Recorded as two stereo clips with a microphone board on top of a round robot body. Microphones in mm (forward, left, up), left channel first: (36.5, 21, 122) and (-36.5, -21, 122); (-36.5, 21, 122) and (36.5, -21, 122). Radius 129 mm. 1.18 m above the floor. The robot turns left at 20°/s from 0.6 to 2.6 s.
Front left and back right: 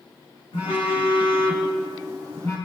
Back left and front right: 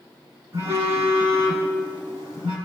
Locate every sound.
0.5 s a phone buzzing: 20° left, 3.5 m; by 2.6 s 15° right, 3.5 m